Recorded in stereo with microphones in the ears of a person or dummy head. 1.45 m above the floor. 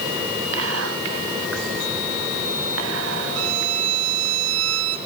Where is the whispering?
75° right (ahead or behind), 1.5 m.